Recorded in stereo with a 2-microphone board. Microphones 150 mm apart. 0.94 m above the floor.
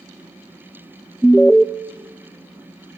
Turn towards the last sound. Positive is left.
turn(degrees=5)  # may be behind; listen again after turning